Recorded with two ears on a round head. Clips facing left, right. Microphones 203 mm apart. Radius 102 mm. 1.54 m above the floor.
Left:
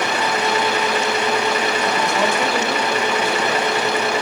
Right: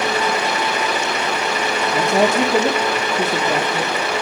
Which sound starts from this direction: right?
A woman speaking, at 1.9 s.